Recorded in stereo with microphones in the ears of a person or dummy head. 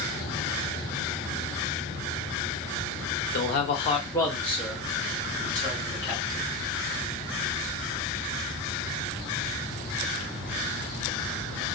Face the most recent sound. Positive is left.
turn(degrees=-15)  # may be behind; listen again after turning